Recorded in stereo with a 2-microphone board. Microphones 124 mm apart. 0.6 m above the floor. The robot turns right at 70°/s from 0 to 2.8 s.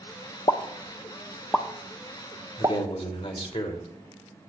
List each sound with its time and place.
0.5 s a pop: 35° left (ahead or behind), 0.8 m; by 2.8 s 35° right (ahead or behind), 0.8 m
2.6 s a man speaking: 45° left (ahead or behind), 2.5 m; by 3.9 s 55° left (ahead or behind), 2.5 m